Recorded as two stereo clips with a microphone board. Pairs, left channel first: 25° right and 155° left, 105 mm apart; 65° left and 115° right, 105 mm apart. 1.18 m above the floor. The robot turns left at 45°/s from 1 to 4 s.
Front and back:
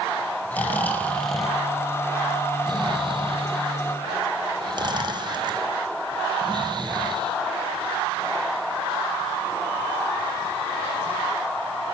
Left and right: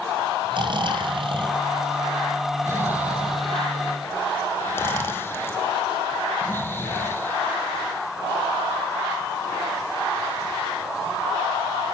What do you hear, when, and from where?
0.5 s snoring: 95° right, 1.0 m; by 7.3 s 130° left, 1.0 m